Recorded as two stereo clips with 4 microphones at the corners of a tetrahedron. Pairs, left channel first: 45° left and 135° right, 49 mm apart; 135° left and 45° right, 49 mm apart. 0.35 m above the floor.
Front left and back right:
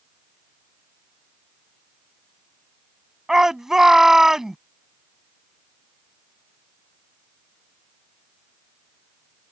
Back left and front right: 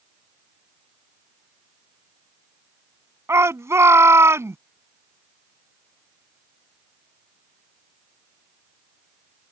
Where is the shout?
55° right.